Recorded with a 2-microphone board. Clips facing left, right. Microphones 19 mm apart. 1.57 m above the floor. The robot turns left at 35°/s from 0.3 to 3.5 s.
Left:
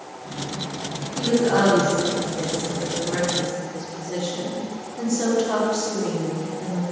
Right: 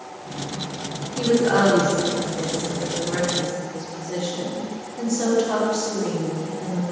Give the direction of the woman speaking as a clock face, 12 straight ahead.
3 o'clock.